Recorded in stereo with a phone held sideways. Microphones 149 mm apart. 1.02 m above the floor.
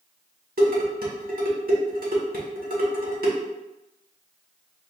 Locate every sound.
0.6 s dishes clattering: 80° right, 1.9 m